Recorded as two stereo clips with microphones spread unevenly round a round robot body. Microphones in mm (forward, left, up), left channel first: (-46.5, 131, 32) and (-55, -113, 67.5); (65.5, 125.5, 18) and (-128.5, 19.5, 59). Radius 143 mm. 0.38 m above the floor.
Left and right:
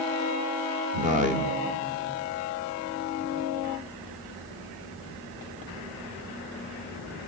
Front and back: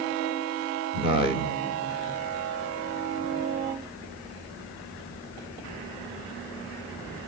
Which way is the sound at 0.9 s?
95° right.